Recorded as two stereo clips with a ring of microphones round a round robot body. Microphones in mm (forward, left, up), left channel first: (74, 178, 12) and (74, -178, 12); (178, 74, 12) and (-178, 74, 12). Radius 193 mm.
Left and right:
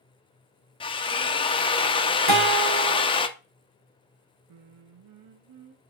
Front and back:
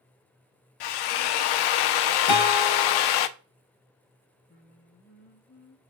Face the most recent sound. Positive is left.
turn(degrees=-65)